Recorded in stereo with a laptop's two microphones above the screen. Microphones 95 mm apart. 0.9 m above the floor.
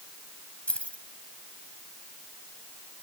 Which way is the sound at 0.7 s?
10° left (ahead or behind).